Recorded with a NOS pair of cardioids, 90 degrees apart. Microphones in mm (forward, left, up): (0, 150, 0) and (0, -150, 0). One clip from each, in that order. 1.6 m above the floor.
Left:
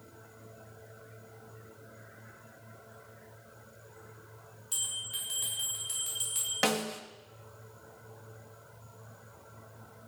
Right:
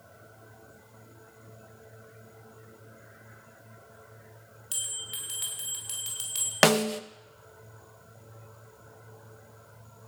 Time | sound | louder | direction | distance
4.7 | a bell | even | 65° right | 7 m
6.6 | a snare drum | right 9 dB | 55° right | 1.2 m